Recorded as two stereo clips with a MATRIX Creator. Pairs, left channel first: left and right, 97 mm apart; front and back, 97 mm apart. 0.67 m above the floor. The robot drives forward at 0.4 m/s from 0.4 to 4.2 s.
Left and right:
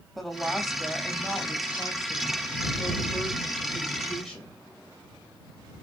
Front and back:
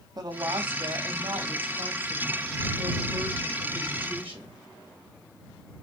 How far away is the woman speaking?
About 0.7 m.